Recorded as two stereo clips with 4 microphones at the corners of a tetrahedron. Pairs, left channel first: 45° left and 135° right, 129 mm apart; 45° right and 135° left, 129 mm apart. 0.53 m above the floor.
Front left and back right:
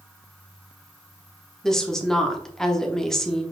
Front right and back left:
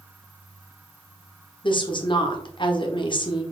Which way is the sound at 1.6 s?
40° right.